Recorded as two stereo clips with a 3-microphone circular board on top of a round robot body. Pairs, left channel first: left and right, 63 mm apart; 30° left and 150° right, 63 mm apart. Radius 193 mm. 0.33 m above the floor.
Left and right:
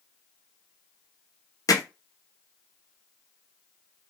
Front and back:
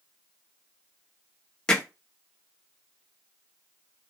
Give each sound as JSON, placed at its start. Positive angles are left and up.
{"t": 1.7, "sound": "hammering", "azimuth_deg": 105, "distance_m": 0.8}